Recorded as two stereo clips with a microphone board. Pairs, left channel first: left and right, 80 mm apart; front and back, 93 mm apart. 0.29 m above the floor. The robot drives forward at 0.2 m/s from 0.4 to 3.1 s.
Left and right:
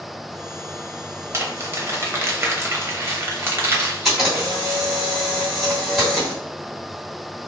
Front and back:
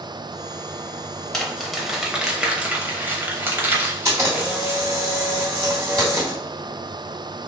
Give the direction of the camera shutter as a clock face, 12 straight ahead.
6 o'clock.